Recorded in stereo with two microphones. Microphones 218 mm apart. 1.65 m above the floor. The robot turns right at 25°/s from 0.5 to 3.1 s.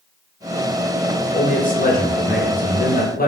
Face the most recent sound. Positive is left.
turn(degrees=100)